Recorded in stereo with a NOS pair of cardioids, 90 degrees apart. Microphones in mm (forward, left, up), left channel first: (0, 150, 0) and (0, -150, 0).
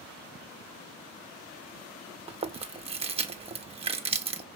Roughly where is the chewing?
Ahead.